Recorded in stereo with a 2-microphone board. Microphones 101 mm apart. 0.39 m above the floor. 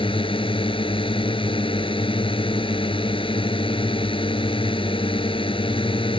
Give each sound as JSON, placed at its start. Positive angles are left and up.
{"t": 0.0, "sound": "a drone", "side_deg": 55}